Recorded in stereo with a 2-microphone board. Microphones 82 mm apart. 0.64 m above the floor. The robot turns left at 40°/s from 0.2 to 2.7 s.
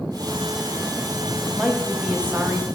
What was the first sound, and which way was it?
A woman speaking, 5° left.